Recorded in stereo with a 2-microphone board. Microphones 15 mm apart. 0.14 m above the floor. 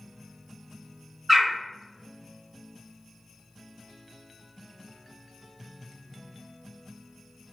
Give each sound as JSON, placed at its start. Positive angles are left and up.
{"t": 1.3, "sound": "a bird", "side_deg": -10, "distance_m": 1.1}